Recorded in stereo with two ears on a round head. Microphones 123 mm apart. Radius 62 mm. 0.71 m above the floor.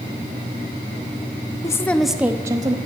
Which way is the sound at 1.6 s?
25° left (ahead or behind).